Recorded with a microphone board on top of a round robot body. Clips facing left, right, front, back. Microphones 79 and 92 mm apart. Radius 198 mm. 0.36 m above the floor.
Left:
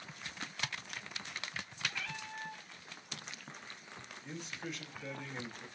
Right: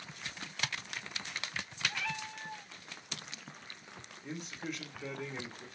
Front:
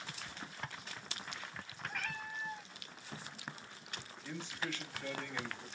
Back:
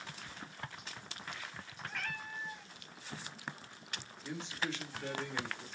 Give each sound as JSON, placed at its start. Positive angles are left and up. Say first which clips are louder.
{"t": 1.9, "sound": "a cat meowing", "louder": "right 4 dB, back 1 dB", "azimuth_deg": -85, "distance_m": 1.1}
{"t": 4.2, "sound": "a man speaking", "louder": "right 3 dB, back 3 dB", "azimuth_deg": -110, "distance_m": 2.5}